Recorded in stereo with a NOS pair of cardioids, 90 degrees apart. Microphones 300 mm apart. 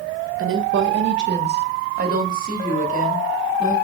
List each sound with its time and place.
0.4 s a woman speaking: 45° right, 1.4 m; by 3.7 s 25° right, 3 m